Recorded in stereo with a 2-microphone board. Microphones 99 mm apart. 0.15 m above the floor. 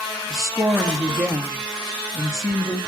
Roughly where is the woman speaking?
Centre.